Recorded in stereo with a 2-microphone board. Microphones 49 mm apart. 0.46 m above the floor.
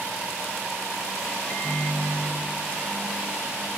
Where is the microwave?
70° left (ahead or behind), 1.6 m.